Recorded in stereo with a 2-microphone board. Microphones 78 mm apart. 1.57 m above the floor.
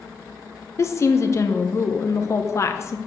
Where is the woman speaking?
40° left (ahead or behind), 0.9 m.